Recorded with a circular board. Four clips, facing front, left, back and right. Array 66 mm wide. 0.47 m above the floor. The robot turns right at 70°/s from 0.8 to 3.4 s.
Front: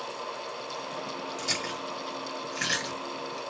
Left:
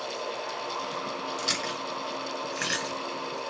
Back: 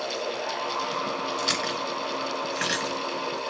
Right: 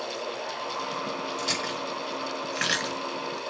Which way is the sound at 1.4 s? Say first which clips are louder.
Right 1 dB, back 6 dB; 155° left.